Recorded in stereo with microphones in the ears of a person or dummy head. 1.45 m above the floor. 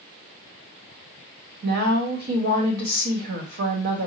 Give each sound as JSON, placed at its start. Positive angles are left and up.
{"t": 1.6, "sound": "a woman speaking", "side_deg": -55, "distance_m": 1.2}